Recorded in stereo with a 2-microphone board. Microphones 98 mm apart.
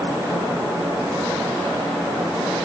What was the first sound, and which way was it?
Only background noise.